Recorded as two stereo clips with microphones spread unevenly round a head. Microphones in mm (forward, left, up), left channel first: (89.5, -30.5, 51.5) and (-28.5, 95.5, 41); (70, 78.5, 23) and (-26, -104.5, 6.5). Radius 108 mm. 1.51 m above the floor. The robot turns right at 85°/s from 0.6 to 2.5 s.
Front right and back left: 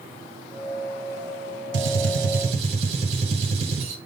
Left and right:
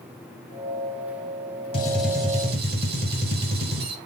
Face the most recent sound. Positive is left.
turn(degrees=-165)